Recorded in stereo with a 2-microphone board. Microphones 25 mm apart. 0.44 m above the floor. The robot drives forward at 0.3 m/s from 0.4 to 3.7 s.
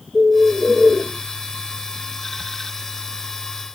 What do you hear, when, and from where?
0.1 s a bird: 35° left (ahead or behind), 1.9 m; by 1.0 s 30° left (ahead or behind), 2 m